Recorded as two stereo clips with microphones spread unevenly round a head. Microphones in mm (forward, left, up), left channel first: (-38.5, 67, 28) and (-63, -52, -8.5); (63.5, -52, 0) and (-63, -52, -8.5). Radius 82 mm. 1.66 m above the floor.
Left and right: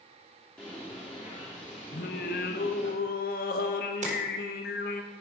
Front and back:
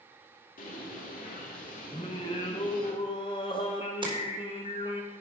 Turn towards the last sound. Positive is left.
turn(degrees=-130)